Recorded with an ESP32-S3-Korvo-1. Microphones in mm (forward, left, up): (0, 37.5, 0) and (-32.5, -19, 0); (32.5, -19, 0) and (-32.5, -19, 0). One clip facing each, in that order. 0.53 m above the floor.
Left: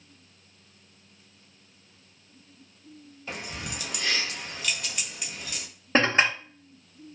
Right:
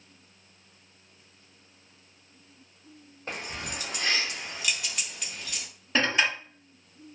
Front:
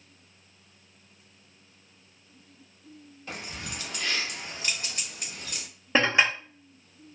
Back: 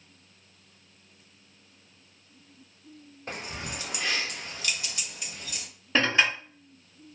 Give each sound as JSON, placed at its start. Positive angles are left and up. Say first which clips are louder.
{"t": 3.3, "sound": "keys jangling", "louder": "right 1 dB, back 2 dB", "azimuth_deg": -150, "distance_m": 1.0}
{"t": 6.0, "sound": "dishes clattering", "louder": "left 3 dB, front 1 dB", "azimuth_deg": 50, "distance_m": 0.7}